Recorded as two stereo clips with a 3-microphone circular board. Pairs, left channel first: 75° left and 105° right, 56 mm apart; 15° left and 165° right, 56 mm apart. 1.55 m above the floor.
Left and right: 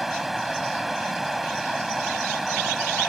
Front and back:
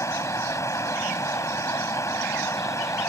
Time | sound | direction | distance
0.0 | running water | 15° right | ?